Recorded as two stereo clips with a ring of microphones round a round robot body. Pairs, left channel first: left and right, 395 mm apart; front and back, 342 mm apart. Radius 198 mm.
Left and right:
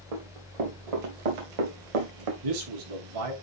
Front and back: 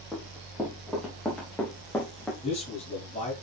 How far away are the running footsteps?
About 4.5 m.